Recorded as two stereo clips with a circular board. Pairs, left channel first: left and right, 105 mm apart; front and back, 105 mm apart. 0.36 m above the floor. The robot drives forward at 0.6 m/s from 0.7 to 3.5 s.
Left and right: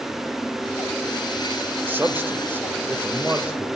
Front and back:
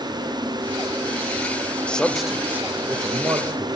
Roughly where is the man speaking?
Ahead right.